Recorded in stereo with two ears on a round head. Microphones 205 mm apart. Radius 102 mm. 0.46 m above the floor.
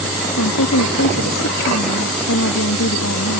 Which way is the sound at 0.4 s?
60° left (ahead or behind).